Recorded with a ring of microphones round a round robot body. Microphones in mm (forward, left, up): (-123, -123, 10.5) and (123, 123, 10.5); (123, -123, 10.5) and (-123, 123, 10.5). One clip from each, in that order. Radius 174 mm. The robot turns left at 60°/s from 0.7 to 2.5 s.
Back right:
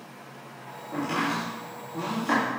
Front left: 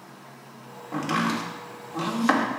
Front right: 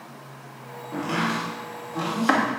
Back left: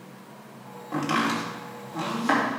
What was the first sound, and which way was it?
Chopping, 105° left.